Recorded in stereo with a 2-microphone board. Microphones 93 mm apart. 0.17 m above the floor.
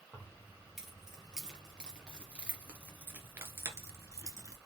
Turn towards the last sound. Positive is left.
turn(degrees=-40)  # may be behind; listen again after turning